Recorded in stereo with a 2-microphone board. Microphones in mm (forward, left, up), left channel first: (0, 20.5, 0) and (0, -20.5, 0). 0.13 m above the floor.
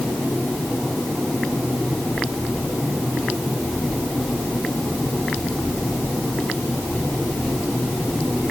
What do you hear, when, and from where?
Only background noise.